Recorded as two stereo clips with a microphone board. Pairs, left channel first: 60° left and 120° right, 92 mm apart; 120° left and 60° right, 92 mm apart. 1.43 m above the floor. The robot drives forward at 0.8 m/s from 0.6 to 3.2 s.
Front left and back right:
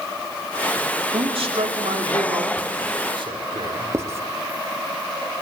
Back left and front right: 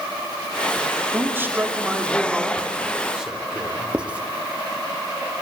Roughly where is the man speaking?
Behind right.